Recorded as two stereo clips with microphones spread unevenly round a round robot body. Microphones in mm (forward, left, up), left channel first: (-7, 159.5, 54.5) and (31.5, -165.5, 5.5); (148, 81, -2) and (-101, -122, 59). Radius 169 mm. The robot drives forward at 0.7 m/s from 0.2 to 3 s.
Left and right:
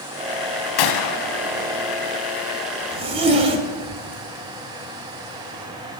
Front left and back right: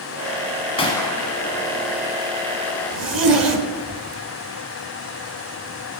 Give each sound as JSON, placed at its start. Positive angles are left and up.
{"t": 0.8, "sound": "a gunshot", "azimuth_deg": 115, "distance_m": 1.0}
{"t": 2.9, "sound": "a zipper", "azimuth_deg": -105, "distance_m": 1.3}